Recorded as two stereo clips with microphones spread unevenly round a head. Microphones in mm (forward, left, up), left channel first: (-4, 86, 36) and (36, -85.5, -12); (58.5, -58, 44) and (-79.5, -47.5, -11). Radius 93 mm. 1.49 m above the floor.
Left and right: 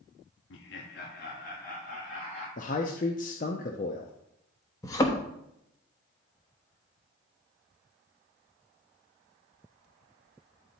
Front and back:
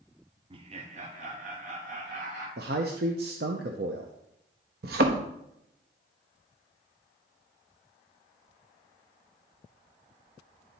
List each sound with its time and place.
0.5 s laughter: 130° left, 0.8 m; by 2.5 s 155° left, 2 m
2.6 s a man speaking: 130° left, 0.6 m
4.8 s a thud: 150° left, 1.0 m